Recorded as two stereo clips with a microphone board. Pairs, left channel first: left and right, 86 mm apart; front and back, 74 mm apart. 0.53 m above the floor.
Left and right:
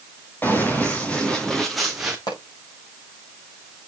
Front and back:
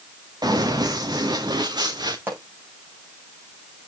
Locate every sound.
0.4 s running footsteps: 155° left, 3 m; by 2.2 s 170° right, 1.9 m
2.3 s a pop: 120° left, 7.5 m